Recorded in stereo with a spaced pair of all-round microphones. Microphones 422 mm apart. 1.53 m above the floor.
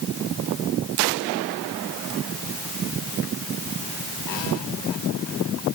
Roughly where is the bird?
I don't hear a bird.